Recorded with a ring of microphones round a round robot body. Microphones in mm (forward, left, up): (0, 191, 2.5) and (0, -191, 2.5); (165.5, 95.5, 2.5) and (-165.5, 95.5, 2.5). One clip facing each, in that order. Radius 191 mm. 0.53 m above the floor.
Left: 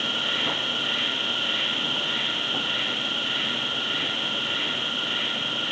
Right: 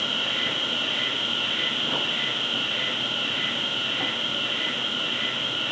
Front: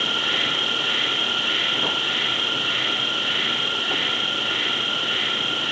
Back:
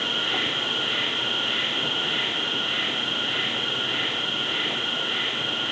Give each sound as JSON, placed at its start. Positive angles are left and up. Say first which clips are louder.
{"t": 0.0, "sound": "an insect", "louder": "left 1 dB, front 1 dB", "azimuth_deg": 25, "distance_m": 2.5}